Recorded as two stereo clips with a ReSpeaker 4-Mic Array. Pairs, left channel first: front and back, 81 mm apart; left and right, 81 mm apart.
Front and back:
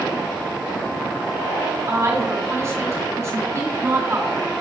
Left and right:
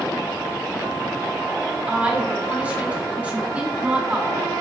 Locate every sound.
1.9 s a woman speaking: 155° right, 2 m